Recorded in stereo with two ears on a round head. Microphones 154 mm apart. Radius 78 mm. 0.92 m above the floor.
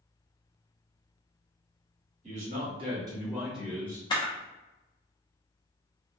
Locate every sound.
2.2 s a man speaking: 45° right (ahead or behind), 1.3 m; by 4.0 s 15° left (ahead or behind), 1.0 m
4.1 s a camera shutter: 25° left (ahead or behind), 0.8 m